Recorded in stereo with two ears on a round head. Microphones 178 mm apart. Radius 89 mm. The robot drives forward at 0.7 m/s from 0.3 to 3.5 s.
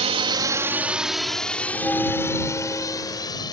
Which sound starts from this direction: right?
A drone, at 0.0 s.